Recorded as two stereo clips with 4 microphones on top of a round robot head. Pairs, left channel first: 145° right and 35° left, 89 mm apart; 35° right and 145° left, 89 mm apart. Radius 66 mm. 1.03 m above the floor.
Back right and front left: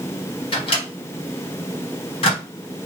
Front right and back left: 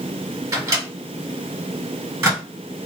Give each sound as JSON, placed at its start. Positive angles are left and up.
{"t": 0.5, "sound": "a microwave", "azimuth_deg": -160, "distance_m": 1.3}